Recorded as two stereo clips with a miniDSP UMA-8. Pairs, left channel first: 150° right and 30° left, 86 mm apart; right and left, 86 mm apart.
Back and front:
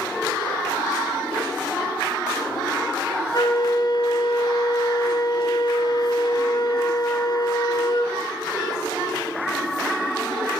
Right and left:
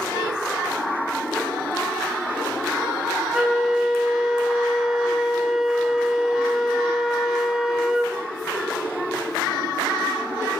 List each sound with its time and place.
3.3 s a flute: 175° left, 2.5 m